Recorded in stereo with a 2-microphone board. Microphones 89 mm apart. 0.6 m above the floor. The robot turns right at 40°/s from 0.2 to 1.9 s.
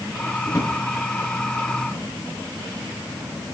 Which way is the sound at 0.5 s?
25° left (ahead or behind).